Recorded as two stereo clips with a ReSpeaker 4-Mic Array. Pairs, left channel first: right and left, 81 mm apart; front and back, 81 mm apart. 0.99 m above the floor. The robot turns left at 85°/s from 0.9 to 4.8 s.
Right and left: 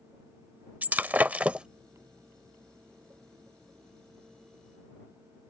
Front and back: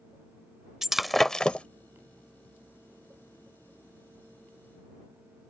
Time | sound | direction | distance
0.8 | breaking glass | 100° left | ?